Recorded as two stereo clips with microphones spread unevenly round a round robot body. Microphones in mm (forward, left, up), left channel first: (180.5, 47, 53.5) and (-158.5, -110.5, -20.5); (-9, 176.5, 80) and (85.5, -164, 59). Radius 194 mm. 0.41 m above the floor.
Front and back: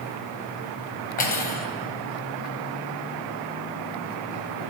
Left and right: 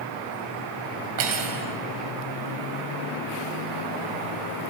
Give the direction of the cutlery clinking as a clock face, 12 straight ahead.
2 o'clock.